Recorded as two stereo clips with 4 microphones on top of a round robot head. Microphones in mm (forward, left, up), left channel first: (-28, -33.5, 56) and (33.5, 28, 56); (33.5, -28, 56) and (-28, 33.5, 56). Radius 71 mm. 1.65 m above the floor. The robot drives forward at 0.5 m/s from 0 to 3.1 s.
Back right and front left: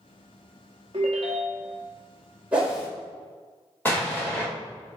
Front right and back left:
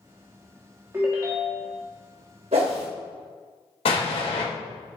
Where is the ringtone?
75° left, 1.4 m; by 1.8 s 95° left, 1.4 m.